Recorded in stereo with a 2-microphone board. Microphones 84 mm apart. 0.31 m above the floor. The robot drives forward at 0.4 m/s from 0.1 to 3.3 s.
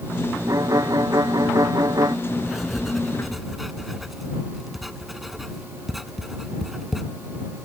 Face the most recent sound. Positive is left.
turn(degrees=0)  # may be behind; listen again after turning